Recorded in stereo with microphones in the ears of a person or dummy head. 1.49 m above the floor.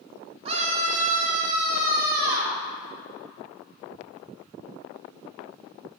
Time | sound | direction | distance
0.5 | a scream | 30° right (ahead or behind) | 1.1 m